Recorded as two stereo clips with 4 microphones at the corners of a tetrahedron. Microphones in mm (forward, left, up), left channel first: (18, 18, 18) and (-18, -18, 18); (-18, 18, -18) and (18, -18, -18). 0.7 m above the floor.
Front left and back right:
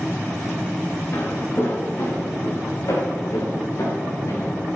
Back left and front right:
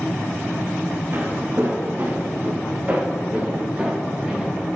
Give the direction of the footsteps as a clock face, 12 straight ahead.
12 o'clock.